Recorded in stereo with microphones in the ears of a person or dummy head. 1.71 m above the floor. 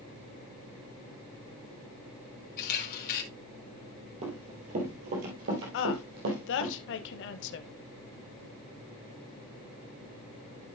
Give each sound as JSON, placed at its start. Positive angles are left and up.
{"t": 2.6, "sound": "a camera shutter", "side_deg": 45, "distance_m": 2.0}
{"t": 4.2, "sound": "running footsteps", "side_deg": -30, "distance_m": 2.5}
{"t": 5.7, "sound": "a woman speaking", "side_deg": 70, "distance_m": 0.8}